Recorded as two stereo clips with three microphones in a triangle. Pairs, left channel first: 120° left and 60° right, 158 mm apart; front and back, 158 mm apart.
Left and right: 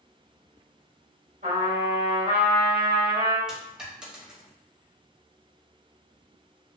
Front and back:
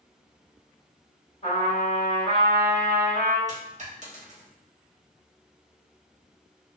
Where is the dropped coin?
145° right, 0.9 m.